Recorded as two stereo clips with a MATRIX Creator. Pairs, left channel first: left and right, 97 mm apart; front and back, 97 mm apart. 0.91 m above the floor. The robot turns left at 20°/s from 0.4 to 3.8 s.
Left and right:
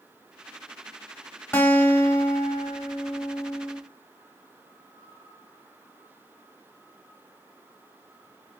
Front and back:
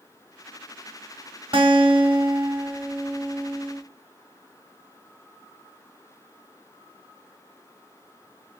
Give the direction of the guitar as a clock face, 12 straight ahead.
7 o'clock.